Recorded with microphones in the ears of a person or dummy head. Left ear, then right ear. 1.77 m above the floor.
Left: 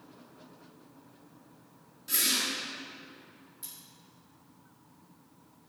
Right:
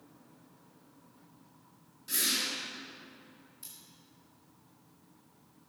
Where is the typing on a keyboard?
I don't hear typing on a keyboard.